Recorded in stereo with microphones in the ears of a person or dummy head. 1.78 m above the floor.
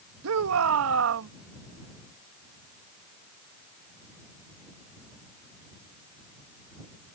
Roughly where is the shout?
Right.